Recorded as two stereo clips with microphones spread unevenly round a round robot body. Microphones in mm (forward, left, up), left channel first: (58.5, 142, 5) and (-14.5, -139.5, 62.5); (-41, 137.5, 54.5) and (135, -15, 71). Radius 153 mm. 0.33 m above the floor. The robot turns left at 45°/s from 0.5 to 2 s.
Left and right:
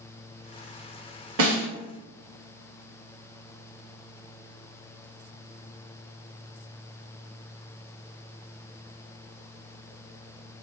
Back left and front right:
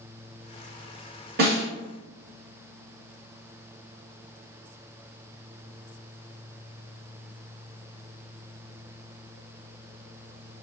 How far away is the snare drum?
About 1.4 m.